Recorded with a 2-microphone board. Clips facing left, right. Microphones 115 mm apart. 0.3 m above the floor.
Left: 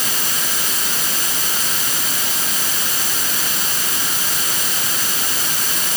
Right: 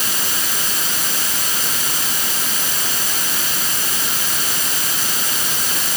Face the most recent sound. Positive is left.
No sound to turn to.